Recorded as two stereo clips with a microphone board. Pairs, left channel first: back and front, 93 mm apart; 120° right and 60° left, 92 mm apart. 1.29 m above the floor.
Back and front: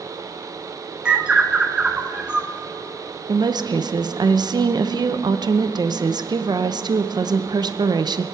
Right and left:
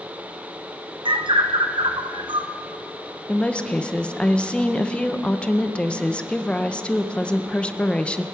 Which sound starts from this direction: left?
A bird, at 1.1 s.